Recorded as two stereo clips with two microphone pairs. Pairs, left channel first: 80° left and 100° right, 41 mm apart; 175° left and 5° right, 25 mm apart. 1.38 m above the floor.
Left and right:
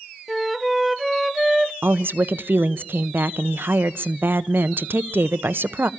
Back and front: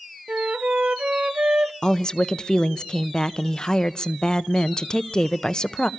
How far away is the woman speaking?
About 0.7 m.